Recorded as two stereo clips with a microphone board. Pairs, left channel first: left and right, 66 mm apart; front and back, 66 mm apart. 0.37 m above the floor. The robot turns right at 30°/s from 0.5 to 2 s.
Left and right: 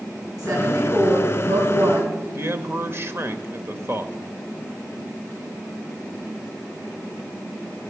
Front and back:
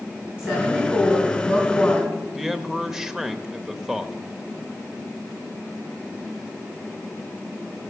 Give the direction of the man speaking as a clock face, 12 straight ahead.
3 o'clock.